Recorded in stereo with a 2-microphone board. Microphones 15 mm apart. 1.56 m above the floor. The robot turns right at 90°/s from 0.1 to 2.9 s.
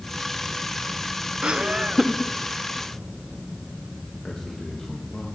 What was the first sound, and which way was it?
Laughter, 75° right.